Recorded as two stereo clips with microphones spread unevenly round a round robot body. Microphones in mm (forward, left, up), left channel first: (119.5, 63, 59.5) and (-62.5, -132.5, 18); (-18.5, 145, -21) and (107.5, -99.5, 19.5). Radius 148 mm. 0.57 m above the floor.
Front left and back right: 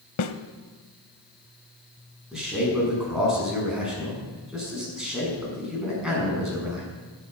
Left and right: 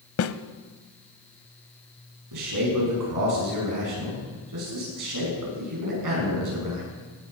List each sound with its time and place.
0.2 s a snare drum: 75° left, 0.7 m
2.3 s a man speaking: 45° right, 6 m